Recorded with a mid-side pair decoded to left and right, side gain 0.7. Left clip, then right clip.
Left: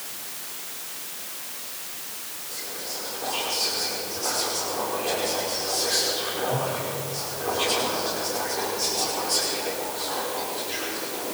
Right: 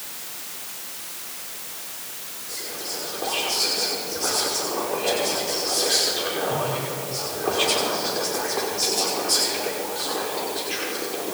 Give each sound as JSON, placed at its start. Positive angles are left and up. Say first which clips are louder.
{"t": 2.5, "sound": "whispering", "louder": "right 3 dB", "azimuth_deg": -30, "distance_m": 5.5}